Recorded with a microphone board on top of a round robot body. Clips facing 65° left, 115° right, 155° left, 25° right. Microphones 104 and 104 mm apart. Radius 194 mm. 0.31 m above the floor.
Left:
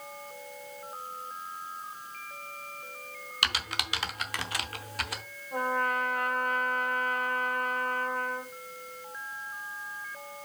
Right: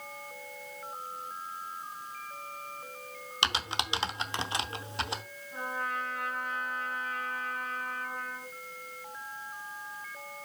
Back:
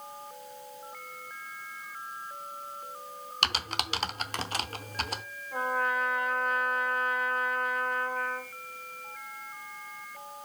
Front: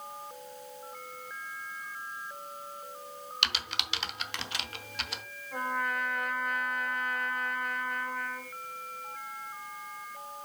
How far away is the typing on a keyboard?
About 0.9 m.